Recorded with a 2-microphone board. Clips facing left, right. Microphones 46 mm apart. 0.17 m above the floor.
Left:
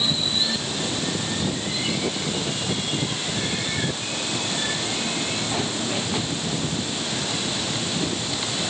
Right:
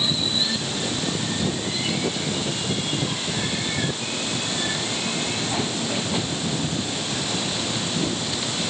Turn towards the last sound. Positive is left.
No sound to turn to.